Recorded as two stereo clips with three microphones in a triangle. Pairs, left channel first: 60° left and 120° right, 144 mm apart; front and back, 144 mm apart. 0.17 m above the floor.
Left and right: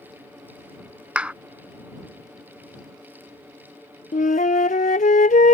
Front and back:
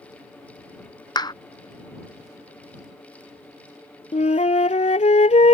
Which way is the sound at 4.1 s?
40° left.